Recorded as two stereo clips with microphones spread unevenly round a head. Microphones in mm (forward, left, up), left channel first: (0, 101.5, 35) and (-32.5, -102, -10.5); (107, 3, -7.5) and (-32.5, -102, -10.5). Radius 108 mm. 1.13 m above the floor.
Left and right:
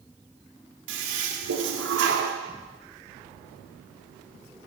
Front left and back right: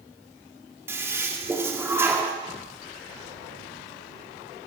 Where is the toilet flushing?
65° right, 2.5 m.